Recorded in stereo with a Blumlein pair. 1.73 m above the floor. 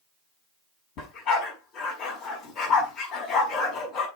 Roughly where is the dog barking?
Ahead left.